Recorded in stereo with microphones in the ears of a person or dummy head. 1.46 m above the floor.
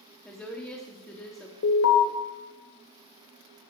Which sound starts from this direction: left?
An alarm, at 1.6 s.